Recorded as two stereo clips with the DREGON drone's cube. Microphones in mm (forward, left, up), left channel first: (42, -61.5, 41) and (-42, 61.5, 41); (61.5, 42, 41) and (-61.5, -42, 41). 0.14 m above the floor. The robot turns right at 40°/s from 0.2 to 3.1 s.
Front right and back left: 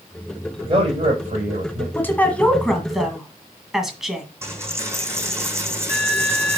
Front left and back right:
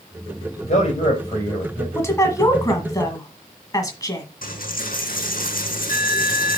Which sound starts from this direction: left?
A man speaking, at 0.6 s.